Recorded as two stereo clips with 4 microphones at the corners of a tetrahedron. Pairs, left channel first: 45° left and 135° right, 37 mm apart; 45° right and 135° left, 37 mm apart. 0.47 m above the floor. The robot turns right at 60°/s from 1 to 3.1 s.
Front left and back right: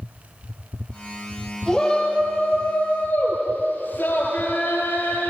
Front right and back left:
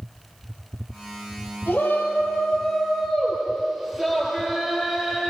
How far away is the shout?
About 9.5 m.